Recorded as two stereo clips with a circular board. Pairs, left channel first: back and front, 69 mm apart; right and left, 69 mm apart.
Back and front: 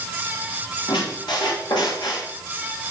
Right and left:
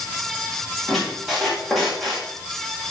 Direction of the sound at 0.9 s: Straight behind.